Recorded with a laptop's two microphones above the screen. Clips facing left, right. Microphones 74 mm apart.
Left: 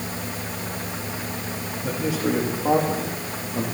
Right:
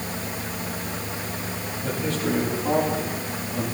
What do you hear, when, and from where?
1.8 s a man speaking: 15° left (ahead or behind), 2 m; by 3.6 s 40° left (ahead or behind), 1.8 m